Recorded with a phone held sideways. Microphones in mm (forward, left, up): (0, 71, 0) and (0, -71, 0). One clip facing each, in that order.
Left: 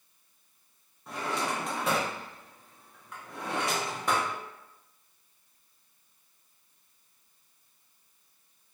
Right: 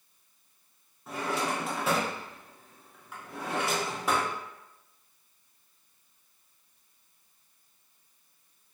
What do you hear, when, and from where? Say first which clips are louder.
1.1 s a drawer: right 1 dB; centre (ahead or behind), 0.6 m